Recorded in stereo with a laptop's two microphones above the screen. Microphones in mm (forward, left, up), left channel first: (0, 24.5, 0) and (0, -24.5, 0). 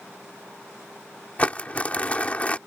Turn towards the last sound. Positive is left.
turn(degrees=30)  # may be behind; listen again after turning